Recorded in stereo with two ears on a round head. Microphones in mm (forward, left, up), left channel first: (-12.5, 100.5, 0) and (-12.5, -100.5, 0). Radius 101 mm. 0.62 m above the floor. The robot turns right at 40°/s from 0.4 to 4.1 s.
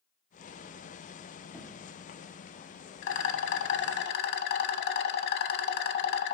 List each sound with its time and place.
1.5 s knocking: 10° left (ahead or behind), 1.1 m; by 1.9 s 20° left (ahead or behind), 1.1 m
3.0 s a rattle: 75° left, 0.8 m; by 6.4 s 120° left, 0.8 m